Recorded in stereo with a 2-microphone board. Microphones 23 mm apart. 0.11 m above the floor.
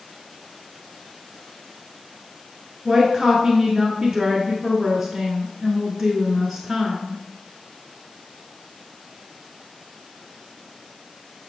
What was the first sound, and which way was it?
A woman speaking, 5° right (ahead or behind).